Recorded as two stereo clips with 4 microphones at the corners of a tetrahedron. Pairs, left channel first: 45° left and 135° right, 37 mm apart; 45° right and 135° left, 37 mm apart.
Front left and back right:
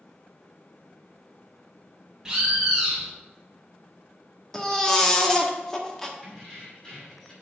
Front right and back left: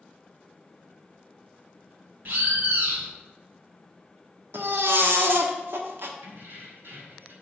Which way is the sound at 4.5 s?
120° left.